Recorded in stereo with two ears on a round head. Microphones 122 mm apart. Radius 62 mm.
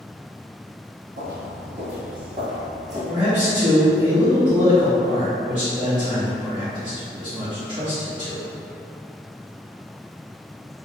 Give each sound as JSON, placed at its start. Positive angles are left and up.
{"t": 1.2, "sound": "footsteps", "side_deg": -60, "distance_m": 1.9}
{"t": 3.1, "sound": "a man speaking", "side_deg": -35, "distance_m": 1.2}